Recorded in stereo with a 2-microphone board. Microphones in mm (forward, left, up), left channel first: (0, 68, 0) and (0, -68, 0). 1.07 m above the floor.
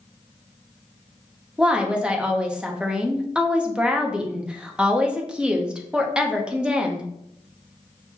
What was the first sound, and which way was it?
A woman speaking, 5° right (ahead or behind).